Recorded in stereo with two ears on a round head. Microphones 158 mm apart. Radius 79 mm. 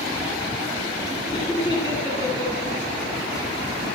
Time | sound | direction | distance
1.3 | laughter | 25° left (ahead or behind) | 8 m